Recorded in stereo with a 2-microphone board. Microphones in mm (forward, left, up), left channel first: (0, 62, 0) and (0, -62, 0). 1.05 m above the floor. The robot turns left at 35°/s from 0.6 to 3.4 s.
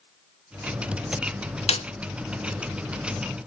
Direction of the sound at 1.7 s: 60° left (ahead or behind).